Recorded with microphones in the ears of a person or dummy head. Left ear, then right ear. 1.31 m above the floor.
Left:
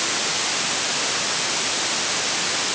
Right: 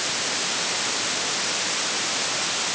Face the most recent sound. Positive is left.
No sound to turn to.